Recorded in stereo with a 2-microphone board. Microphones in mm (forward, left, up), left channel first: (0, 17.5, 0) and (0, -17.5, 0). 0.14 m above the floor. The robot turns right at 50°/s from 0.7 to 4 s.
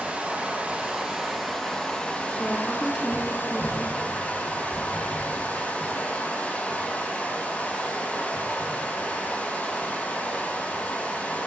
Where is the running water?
40° right, 4.5 m; by 11.5 s 125° left, 4.5 m.